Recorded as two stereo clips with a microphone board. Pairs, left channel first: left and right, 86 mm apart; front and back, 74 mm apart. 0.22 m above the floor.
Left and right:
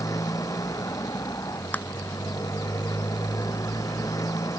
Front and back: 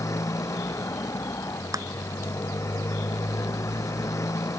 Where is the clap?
155° left.